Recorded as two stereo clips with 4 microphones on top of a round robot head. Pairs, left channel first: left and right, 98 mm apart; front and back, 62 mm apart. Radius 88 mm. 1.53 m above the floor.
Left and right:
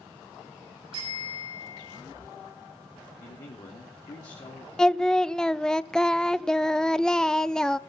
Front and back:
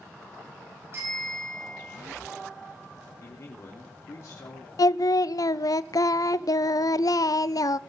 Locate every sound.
0.9 s a bicycle bell: 125° right, 7 m
3.2 s a man speaking: 45° left, 3 m
4.8 s singing: 5° left, 0.6 m